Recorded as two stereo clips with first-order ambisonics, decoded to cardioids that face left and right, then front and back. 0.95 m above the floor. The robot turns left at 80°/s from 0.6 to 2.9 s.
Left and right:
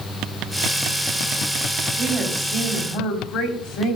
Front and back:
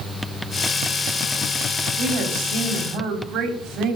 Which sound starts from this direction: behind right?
A woman speaking, at 2.0 s.